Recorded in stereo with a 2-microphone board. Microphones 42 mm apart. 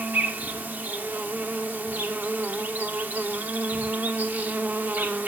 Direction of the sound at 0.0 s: 45° right (ahead or behind).